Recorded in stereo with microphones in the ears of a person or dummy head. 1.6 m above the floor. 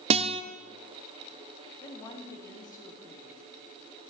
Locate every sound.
0.1 s a guitar: 35° right (ahead or behind), 1.0 m
1.8 s a woman speaking: 25° left (ahead or behind), 2.5 m